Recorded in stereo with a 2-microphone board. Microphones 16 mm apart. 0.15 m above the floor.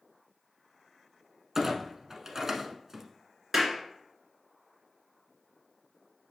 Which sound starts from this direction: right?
A clunk, at 1.6 s.